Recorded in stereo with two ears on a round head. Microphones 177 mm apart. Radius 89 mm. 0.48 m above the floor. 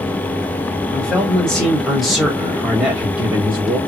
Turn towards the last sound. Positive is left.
turn(degrees=-10)  # may be behind; listen again after turning